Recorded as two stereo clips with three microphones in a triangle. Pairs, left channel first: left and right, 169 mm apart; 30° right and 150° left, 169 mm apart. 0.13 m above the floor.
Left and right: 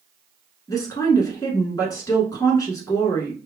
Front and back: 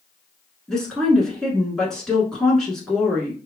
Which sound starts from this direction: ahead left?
A woman speaking, at 0.7 s.